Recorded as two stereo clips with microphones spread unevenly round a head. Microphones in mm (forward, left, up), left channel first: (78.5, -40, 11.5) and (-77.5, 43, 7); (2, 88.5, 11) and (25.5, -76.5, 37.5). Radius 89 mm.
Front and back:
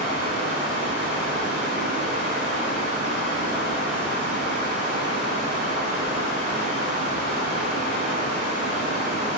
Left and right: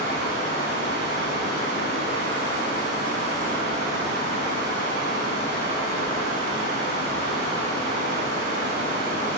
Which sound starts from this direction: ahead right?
Running water, at 0.0 s.